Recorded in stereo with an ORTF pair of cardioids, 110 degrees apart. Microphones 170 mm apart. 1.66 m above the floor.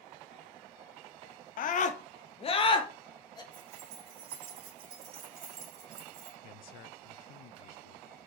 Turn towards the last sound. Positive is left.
turn(degrees=65)